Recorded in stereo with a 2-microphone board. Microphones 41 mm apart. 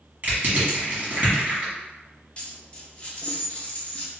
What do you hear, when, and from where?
0.2 s crushing: 40° right (ahead or behind), 1.5 m
2.4 s a dropped coin: 25° left (ahead or behind), 0.7 m